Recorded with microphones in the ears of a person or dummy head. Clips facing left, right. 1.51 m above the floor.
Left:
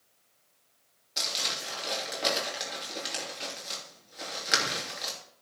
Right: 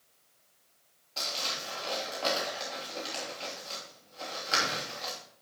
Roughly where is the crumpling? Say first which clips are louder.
Even; centre.